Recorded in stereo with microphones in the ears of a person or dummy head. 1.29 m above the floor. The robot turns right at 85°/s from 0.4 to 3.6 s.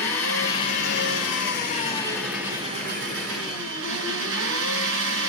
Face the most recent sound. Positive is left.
turn(degrees=-75)